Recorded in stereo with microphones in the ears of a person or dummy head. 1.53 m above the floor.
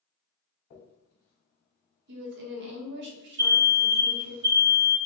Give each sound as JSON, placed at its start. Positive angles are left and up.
{"t": 0.7, "sound": "a dropped coin", "side_deg": 30, "distance_m": 1.3}
{"t": 2.1, "sound": "a woman speaking", "side_deg": -60, "distance_m": 1.4}
{"t": 3.4, "sound": "an alarm", "side_deg": -55, "distance_m": 2.0}